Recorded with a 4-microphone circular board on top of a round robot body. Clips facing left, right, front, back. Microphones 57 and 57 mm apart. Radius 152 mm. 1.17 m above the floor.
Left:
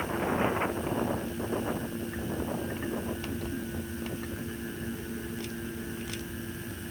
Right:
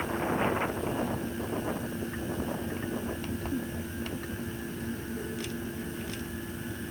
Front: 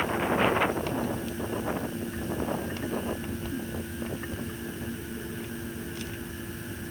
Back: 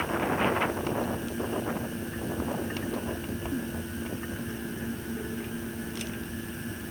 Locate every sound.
Only background noise.